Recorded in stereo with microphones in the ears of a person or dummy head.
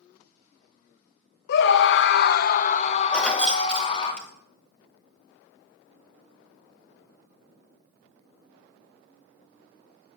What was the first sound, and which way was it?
A scream, 65° left (ahead or behind).